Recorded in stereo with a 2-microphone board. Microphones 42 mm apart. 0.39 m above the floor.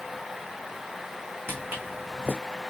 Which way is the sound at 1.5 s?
55° right (ahead or behind).